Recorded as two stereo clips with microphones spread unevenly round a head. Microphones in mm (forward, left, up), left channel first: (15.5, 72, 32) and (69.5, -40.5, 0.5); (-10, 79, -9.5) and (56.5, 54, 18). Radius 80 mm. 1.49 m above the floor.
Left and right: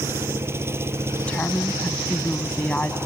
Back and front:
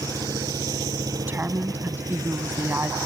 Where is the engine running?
5° left.